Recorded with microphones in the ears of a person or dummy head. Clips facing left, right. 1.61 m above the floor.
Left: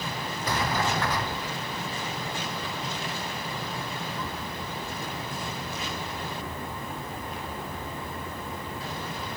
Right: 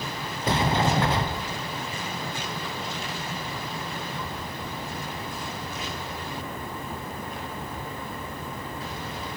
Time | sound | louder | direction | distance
0.4 | a sliding door | right 5 dB | 20° right (ahead or behind) | 0.5 m